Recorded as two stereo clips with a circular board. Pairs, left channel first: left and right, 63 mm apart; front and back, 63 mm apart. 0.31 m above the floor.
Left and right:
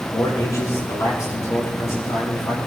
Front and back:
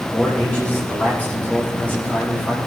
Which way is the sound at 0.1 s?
65° left.